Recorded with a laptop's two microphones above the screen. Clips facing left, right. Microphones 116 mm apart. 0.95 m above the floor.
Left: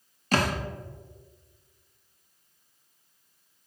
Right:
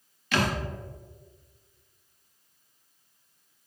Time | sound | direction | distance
0.3 | a thud | 40° left (ahead or behind) | 0.5 m